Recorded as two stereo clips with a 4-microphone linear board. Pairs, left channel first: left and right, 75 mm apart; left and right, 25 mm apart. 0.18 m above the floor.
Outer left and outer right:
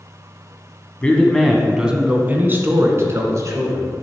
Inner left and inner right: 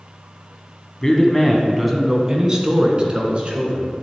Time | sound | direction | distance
1.0 | a man speaking | 15° left (ahead or behind) | 1.4 m